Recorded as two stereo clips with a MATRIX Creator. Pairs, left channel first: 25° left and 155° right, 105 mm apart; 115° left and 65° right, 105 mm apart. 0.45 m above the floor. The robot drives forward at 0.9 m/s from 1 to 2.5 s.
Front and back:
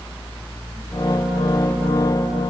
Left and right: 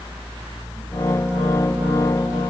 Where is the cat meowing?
No cat meowing in this recording.